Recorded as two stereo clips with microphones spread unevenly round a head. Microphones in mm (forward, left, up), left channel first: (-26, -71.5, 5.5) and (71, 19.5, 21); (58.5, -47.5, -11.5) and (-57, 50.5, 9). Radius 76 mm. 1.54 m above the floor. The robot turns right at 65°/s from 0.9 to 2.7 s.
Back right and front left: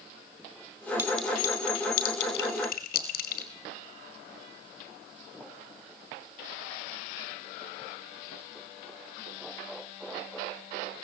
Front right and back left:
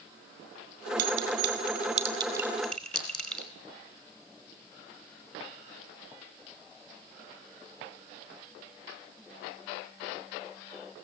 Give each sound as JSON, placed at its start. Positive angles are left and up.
{"t": 1.0, "sound": "a clink", "azimuth_deg": 125, "distance_m": 4.5}